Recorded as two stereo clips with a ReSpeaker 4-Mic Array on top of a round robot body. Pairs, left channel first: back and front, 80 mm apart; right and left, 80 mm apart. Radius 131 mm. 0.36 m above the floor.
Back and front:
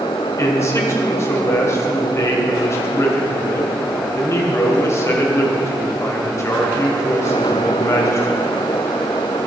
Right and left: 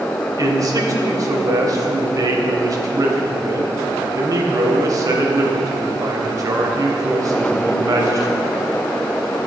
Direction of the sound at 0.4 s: 130° left.